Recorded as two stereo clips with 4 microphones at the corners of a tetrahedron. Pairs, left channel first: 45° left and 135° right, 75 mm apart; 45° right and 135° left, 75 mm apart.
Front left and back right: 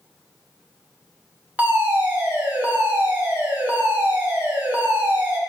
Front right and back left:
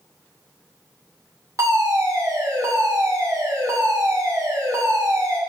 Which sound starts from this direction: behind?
A fire alarm, at 1.6 s.